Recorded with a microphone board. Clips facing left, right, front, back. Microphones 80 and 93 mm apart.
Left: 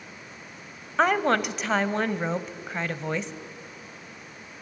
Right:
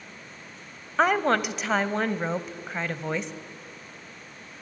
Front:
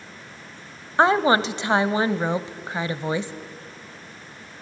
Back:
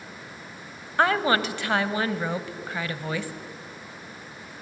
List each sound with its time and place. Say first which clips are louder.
1.0 s a woman speaking: even, front 4 dB; straight ahead, 1.0 m